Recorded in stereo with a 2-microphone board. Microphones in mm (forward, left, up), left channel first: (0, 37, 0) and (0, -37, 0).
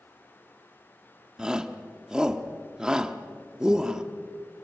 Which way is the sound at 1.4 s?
10° right (ahead or behind).